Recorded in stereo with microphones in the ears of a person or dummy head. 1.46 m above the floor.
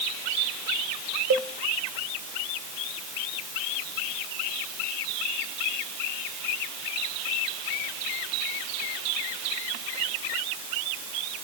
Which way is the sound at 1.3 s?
60° right (ahead or behind).